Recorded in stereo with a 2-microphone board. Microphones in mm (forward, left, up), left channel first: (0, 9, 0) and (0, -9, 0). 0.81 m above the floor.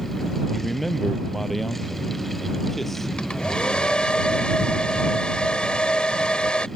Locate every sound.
0.5 s a man speaking: 10° left (ahead or behind); by 3.1 s 20° left (ahead or behind)
3.2 s a hair dryer: 80° left